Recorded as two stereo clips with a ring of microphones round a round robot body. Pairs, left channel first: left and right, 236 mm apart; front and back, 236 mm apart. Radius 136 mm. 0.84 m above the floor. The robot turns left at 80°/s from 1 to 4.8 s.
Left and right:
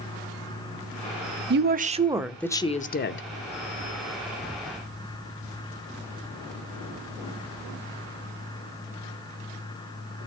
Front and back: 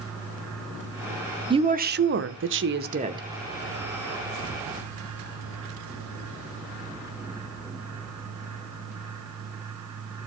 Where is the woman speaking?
115° right, 0.8 m; by 3.2 s 110° left, 0.8 m.